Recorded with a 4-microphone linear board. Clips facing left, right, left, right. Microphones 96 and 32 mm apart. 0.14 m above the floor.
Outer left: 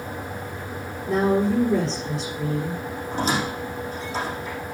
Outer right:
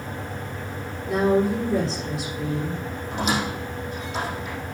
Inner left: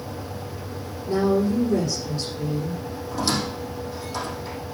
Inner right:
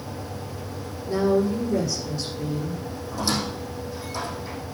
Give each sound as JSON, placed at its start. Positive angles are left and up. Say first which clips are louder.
{"t": 1.1, "sound": "a woman speaking", "louder": "even, even", "side_deg": 35, "distance_m": 6.5}
{"t": 3.1, "sound": "a squeak", "louder": "outer left 1 dB, inner left 1 dB", "side_deg": 35, "distance_m": 4.5}